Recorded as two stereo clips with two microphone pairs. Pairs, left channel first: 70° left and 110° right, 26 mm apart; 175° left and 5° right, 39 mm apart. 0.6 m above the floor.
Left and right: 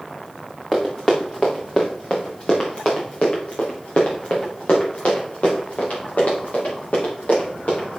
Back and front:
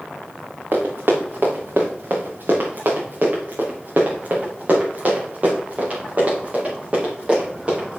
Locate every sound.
0.7 s running footsteps: straight ahead, 3 m; by 8.0 s 55° left, 6.5 m